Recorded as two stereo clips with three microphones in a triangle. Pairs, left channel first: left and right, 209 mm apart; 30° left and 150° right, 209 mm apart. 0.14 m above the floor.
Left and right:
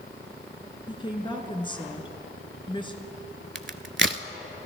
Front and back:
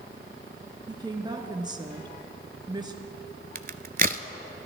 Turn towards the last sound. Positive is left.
turn(degrees=-105)